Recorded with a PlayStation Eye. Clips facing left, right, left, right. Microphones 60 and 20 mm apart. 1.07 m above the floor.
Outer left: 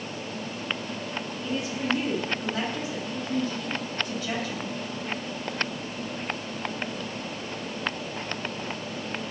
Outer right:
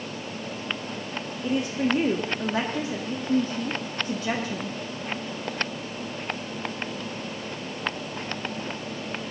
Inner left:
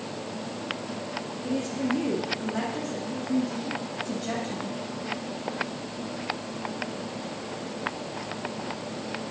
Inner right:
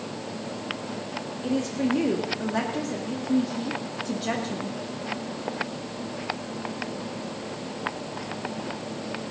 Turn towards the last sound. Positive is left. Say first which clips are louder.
# outer right 5 dB, inner right 3 dB
turn(degrees=-40)  # may be behind; listen again after turning